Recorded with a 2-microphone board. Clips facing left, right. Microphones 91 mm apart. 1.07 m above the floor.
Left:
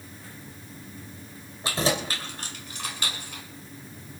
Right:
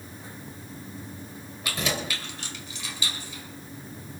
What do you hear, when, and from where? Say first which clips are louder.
1.6 s keys jangling: left 4 dB; 30° left (ahead or behind), 3 m; by 3.4 s 65° left (ahead or behind), 2.5 m